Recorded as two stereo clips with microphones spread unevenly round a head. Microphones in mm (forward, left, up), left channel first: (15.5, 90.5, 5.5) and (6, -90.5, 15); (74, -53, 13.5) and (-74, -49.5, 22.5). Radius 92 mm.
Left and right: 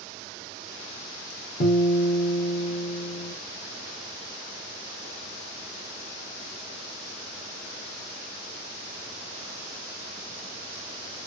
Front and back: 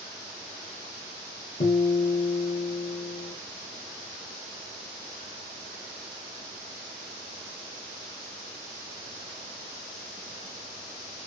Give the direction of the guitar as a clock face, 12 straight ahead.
10 o'clock.